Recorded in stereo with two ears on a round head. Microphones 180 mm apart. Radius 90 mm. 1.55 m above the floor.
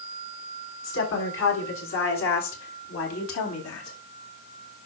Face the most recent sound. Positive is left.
turn(degrees=80)